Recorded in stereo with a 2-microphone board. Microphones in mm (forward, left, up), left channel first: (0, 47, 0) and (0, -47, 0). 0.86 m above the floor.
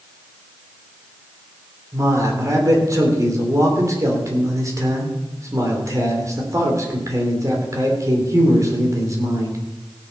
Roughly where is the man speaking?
Right.